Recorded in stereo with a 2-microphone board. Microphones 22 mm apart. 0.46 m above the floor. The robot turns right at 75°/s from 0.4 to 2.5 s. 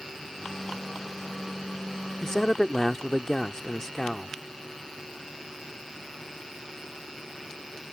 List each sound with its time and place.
2.2 s a man speaking: 20° left (ahead or behind)